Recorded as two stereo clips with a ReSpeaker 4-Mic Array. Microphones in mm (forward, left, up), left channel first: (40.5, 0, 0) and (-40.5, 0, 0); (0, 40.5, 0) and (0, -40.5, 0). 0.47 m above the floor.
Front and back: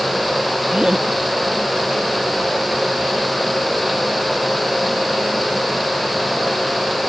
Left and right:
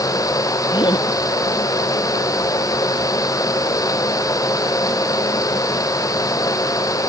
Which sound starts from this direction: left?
Laughter, at 0.7 s.